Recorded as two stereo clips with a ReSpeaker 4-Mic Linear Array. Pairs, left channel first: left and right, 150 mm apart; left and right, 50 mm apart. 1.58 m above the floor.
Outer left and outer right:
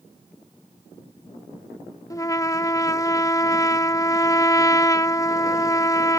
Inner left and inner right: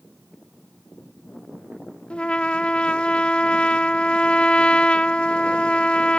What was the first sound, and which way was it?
A trumpet, 20° left (ahead or behind).